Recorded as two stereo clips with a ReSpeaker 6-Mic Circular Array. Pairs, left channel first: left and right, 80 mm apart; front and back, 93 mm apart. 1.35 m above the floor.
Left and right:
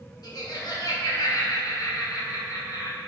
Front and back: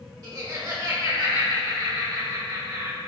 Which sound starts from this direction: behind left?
Laughter, at 0.2 s.